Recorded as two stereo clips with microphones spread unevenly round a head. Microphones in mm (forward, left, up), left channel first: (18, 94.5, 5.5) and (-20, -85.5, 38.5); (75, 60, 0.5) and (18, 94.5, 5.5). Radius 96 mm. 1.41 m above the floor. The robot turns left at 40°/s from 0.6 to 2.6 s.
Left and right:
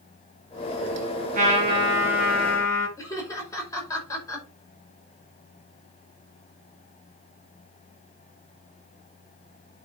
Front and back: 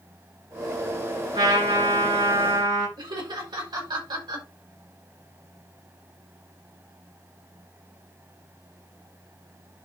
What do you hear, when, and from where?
1.3 s a trumpet: 150° right, 8 m; by 2.9 s 160° left, 8 m
3.0 s laughter: 155° left, 5.5 m